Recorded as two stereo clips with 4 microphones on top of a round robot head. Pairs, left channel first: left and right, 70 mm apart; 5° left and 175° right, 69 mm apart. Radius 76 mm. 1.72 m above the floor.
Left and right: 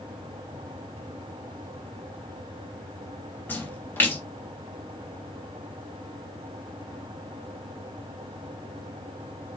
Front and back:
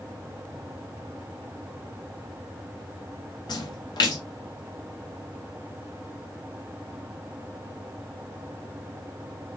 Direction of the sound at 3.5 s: 25° left.